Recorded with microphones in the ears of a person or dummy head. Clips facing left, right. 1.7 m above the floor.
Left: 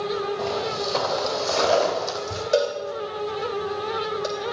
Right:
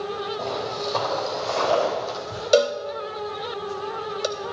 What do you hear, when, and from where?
0.4 s footsteps: centre (ahead or behind), 3 m; by 2.4 s 40° left (ahead or behind), 3 m
2.5 s a cowbell: 55° right (ahead or behind), 0.6 m